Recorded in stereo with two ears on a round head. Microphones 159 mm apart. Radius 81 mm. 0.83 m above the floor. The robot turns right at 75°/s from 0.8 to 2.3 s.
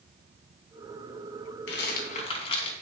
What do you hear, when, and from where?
1.7 s a rattle: 80° left, 3 m; by 2.7 s 35° left (ahead or behind), 3 m